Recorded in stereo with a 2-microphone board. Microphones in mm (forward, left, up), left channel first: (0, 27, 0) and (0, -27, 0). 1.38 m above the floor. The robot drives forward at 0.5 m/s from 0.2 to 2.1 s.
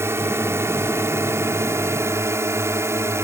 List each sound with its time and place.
0.0 s a drone: 55° right (ahead or behind); by 3.2 s 60° right (ahead or behind)